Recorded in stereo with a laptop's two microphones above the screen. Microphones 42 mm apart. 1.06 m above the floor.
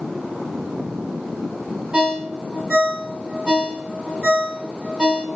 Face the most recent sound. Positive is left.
turn(degrees=-20)  # may be behind; listen again after turning